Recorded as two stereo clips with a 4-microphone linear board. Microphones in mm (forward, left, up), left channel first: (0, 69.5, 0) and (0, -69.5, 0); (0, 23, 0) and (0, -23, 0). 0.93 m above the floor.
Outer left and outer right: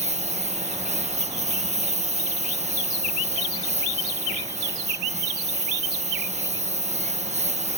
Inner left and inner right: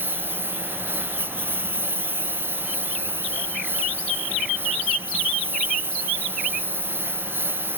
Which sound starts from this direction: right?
A lawn mower, at 0.0 s.